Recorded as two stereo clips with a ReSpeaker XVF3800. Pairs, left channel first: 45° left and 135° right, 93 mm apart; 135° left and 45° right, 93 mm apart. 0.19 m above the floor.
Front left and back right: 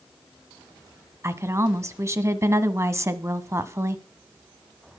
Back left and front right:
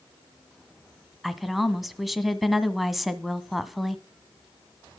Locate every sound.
1.2 s a woman speaking: 135° right, 1.2 m